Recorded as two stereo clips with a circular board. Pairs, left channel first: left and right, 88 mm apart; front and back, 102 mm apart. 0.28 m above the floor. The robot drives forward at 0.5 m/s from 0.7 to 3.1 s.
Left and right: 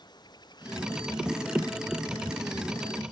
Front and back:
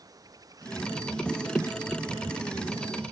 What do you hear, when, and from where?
0.0 s running water: 125° left; by 3.1 s 130° left